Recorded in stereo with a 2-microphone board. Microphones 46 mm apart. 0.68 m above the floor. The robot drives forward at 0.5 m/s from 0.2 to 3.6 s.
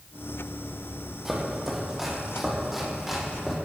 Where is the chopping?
10° right (ahead or behind), 5.5 m; by 3.6 s 5° right (ahead or behind), 6.5 m.